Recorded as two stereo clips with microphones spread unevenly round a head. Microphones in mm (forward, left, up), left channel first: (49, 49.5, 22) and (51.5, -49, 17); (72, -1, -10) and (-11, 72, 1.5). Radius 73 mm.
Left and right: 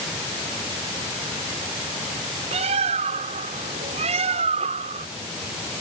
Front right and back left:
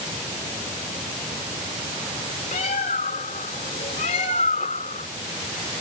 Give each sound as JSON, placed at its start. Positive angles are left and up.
{"t": 2.5, "sound": "a bird", "azimuth_deg": -85}